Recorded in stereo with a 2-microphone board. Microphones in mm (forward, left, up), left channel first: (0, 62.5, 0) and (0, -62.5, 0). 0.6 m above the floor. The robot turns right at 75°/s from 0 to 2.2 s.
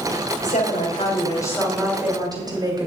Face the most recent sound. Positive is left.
turn(degrees=-150)